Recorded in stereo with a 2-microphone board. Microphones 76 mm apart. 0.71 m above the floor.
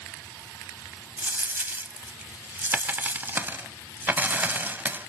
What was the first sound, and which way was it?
A dropped coin, 25° right (ahead or behind).